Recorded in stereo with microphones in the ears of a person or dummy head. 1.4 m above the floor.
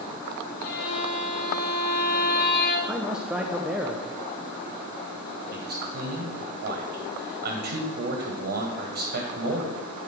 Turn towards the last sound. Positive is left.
turn(degrees=-50)  # may be behind; listen again after turning